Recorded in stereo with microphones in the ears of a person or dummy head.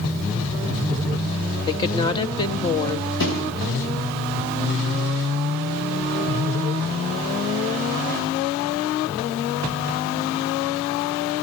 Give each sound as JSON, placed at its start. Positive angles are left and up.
{"t": 1.7, "sound": "a woman speaking", "side_deg": 30, "distance_m": 1.9}
{"t": 3.2, "sound": "a thud", "side_deg": 65, "distance_m": 9.5}